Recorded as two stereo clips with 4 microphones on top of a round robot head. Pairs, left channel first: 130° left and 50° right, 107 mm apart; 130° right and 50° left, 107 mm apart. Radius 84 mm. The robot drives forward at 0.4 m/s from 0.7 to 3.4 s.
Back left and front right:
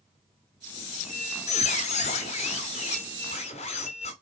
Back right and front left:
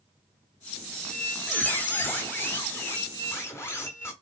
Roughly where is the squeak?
Behind left.